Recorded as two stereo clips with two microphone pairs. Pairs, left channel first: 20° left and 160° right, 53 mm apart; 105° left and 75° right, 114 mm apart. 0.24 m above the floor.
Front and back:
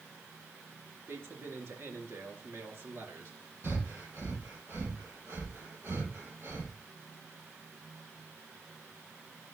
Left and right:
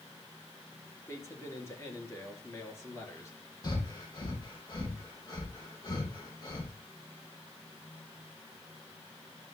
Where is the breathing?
160° left, 4 m.